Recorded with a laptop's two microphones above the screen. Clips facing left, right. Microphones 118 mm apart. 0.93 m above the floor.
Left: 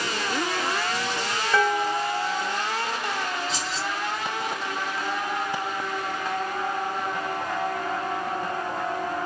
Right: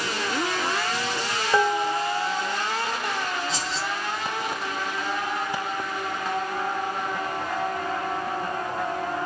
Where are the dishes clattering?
20° right (ahead or behind), 0.7 m.